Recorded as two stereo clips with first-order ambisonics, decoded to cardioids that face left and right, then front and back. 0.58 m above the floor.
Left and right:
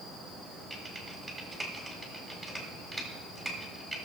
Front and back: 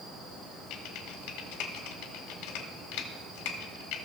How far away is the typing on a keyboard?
About 1.7 m.